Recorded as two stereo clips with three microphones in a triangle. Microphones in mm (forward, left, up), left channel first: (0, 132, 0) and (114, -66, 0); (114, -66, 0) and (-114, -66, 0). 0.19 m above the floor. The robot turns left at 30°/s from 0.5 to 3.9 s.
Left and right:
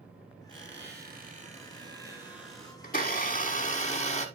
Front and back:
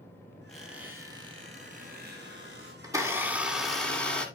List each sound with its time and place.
0.5 s a squeak: 90° right, 3.5 m; by 2.7 s 155° right, 3.5 m
2.8 s a blender: 115° left, 1.7 m; by 4.3 s 85° left, 1.7 m